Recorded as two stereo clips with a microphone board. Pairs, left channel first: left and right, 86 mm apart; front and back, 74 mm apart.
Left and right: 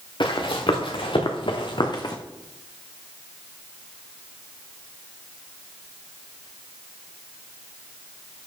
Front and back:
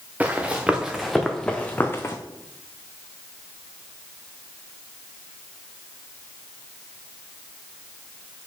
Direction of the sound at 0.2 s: 110° left.